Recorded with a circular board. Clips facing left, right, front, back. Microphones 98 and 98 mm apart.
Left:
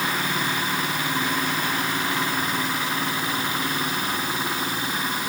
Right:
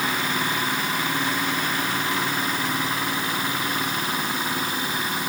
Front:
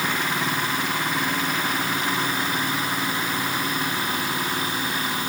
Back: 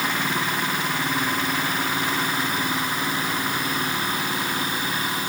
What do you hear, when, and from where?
Only background noise.